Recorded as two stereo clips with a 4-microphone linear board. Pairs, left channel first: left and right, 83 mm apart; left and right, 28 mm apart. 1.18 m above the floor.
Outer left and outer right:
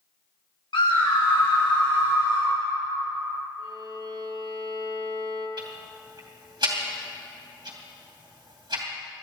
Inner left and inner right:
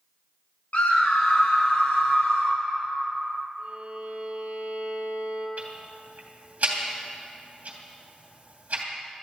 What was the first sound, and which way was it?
A scream, 85° left.